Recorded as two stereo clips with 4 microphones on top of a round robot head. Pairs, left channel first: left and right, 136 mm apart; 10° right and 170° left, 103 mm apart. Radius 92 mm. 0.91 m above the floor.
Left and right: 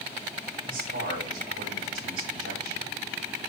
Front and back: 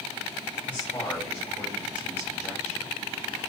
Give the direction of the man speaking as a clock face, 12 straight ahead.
3 o'clock.